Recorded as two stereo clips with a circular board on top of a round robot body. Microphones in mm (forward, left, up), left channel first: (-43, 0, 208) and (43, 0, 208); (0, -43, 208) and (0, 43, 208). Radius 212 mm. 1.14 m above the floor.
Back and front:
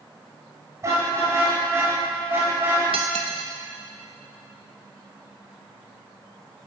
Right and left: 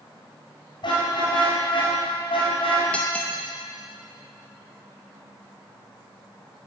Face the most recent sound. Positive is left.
turn(degrees=-15)